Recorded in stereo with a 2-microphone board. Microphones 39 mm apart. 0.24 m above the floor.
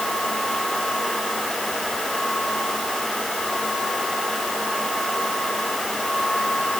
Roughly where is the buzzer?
I don't hear a buzzer.